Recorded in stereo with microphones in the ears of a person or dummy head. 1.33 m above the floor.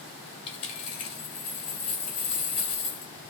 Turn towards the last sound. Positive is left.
turn(degrees=30)  # may be behind; listen again after turning